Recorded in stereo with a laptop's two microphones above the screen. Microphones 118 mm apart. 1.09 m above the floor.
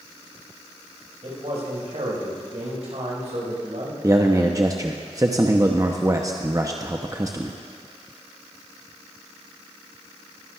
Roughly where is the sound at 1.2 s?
Right.